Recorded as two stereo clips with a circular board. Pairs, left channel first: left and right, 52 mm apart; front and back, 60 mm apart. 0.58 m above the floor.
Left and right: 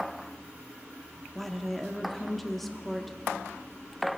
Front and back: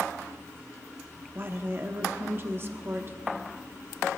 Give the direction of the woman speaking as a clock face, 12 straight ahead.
6 o'clock.